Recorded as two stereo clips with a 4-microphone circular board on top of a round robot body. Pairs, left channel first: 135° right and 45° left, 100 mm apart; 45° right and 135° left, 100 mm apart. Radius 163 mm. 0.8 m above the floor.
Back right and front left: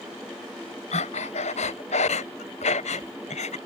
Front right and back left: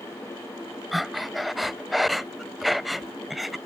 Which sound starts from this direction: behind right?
Breathing, at 0.9 s.